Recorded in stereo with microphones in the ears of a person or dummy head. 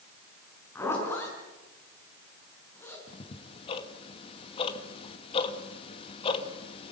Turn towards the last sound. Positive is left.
turn(degrees=30)  # may be behind; listen again after turning